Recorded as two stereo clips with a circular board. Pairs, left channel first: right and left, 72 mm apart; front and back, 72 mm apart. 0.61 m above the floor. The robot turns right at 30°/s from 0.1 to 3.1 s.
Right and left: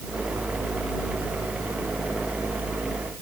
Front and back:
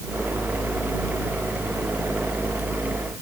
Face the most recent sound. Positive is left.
No sound to turn to.